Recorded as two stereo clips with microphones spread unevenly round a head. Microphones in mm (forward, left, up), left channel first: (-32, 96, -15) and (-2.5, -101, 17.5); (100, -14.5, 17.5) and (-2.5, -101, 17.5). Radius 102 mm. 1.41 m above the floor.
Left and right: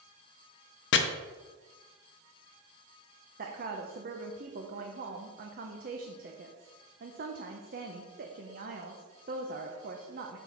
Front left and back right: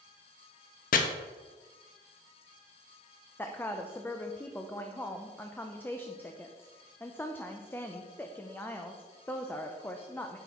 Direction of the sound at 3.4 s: 35° right.